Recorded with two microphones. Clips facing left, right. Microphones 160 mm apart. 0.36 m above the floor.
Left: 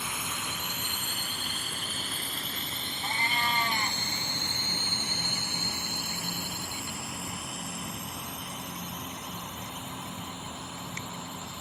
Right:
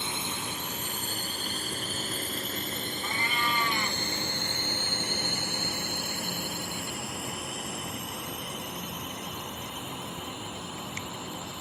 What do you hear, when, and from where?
0.0 s a drone: 25° right (ahead or behind); by 11.6 s 65° right (ahead or behind)
3.0 s a cat meowing: 35° left (ahead or behind)